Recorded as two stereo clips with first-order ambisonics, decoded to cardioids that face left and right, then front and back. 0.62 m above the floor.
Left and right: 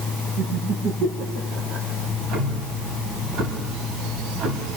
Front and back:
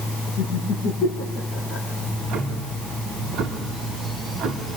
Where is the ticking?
130° right, 3 m.